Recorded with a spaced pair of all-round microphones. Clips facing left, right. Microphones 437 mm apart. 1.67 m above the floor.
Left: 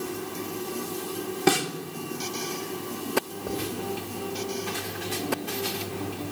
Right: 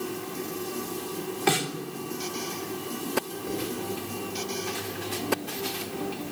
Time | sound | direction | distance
1.5 | a snare drum | 60° left (ahead or behind) | 1.8 m
3.5 | writing | 85° left | 6.5 m